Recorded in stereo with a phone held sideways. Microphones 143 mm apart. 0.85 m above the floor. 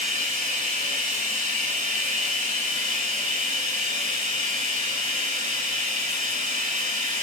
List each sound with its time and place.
0.0 s running water: 60° right (ahead or behind), 6 m